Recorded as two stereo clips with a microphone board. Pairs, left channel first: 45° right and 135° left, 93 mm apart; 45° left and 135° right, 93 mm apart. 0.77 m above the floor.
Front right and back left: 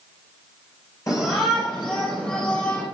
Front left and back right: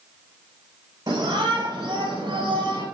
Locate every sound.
1.1 s a shout: 95° right, 3 m; by 2.8 s 115° right, 4 m